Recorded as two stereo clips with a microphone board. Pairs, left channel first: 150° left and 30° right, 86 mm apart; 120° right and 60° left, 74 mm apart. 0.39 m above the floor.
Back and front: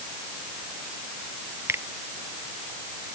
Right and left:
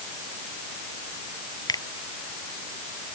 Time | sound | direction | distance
1.7 | a finger snap | 90° right | ?